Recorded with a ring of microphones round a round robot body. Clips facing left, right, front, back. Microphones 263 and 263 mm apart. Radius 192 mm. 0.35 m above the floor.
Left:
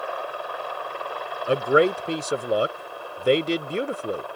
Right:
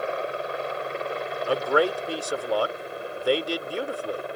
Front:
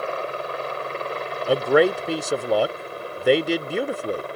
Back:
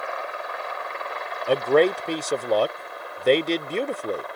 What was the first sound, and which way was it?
A helicopter, 35° right.